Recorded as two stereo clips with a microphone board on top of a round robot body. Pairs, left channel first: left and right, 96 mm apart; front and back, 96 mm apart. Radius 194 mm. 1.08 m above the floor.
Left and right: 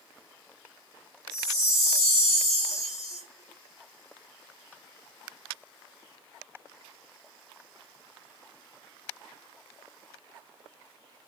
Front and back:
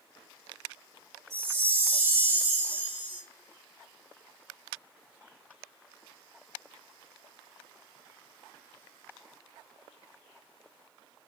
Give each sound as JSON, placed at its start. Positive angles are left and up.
{"t": 1.3, "sound": "a chime", "azimuth_deg": 170, "distance_m": 1.9}